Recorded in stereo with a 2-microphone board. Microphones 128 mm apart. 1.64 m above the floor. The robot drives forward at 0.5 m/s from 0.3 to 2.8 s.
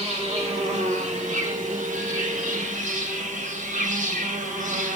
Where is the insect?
50° right (ahead or behind), 1.7 m; by 5.0 s 70° right (ahead or behind), 1.4 m.